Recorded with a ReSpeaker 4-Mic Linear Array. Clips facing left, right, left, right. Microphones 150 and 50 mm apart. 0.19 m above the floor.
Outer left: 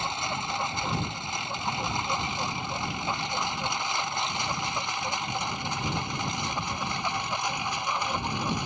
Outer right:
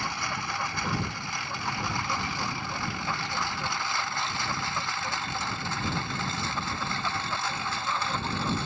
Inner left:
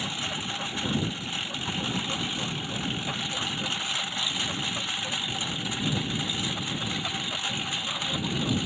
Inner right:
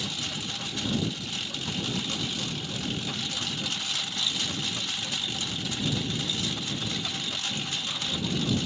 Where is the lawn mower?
20° left (ahead or behind); by 8.7 s 15° left (ahead or behind).